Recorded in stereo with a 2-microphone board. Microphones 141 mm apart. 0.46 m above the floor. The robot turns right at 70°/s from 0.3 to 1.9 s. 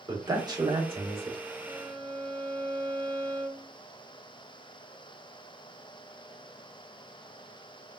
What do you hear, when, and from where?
0.1 s a man speaking: 140° right, 1.3 m; by 1.4 s 65° right, 1.3 m
1.6 s a violin: 25° right (ahead or behind), 0.7 m; by 3.7 s 40° right (ahead or behind), 0.7 m